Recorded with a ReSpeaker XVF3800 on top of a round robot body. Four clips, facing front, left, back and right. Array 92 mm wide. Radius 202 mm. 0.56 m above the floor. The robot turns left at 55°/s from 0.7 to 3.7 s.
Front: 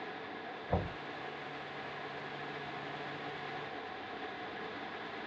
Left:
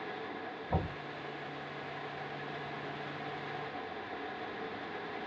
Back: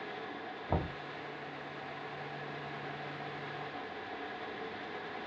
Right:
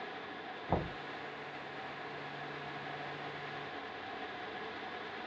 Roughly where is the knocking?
Behind right.